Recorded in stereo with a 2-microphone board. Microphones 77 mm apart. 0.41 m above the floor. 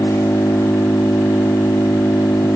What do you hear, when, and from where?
0.0 s an engine running: 40° left (ahead or behind)